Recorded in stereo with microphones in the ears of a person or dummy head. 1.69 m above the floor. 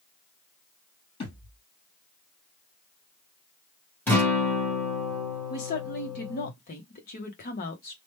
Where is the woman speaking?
45° left (ahead or behind), 0.9 m.